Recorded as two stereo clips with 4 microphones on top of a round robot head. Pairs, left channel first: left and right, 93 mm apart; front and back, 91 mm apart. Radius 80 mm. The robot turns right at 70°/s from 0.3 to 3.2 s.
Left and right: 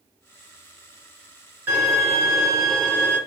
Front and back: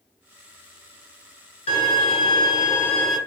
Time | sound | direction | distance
1.7 | a violin | 20° right | 1.8 m